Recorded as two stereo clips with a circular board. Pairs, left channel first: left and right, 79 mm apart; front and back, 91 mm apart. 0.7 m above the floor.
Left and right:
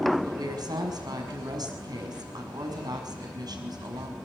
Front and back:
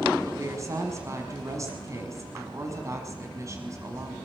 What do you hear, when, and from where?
0.2 s a woman speaking: 125° right, 5.5 m